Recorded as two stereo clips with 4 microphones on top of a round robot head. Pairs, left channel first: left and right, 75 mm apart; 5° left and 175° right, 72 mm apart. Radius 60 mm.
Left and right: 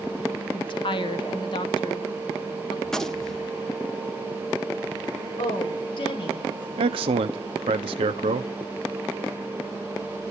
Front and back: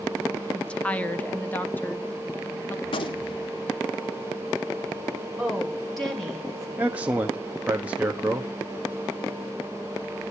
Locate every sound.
0.5 s a woman speaking: 80° left, 1.3 m; by 2.8 s 65° left, 2.5 m
2.9 s a gunshot: 5° left, 1.4 m
5.4 s a woman speaking: 90° left, 8.5 m
6.8 s a man speaking: 100° right, 1.0 m